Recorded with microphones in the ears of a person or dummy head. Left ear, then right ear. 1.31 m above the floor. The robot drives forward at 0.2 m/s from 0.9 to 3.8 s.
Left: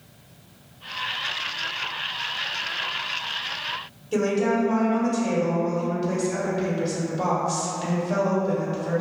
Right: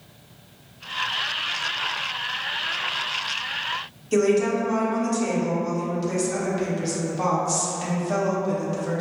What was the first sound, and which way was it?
A woman speaking, 80° right.